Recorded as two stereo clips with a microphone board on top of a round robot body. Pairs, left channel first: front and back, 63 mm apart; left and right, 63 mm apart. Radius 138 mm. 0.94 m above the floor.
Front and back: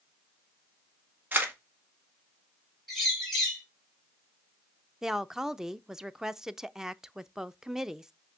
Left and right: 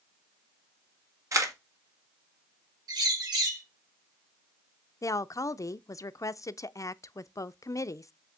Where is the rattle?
No rattle in this recording.